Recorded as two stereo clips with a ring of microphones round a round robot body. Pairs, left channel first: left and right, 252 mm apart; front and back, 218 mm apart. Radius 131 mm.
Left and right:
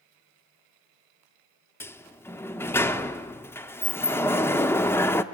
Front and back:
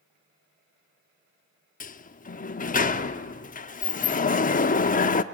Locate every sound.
1.8 s a sliding door: 15° left, 0.8 m